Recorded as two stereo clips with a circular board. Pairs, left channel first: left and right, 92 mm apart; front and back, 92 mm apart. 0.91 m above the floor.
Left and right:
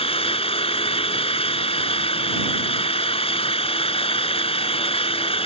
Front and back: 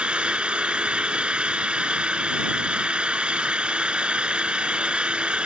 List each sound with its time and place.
0.0 s an engine running: 100° left